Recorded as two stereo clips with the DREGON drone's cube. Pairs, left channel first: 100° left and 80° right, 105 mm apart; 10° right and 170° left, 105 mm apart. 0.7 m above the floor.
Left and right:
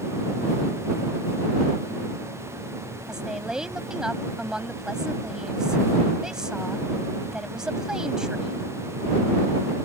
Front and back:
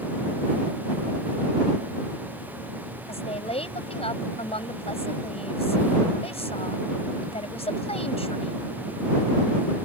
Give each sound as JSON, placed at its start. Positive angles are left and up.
{"t": 3.1, "sound": "a woman speaking", "azimuth_deg": 5}